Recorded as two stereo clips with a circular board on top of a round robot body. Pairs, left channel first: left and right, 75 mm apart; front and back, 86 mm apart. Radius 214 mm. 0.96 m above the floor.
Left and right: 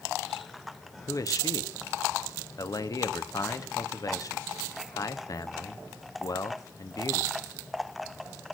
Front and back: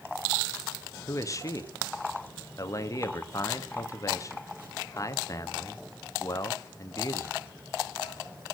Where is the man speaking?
50° left, 1.5 m.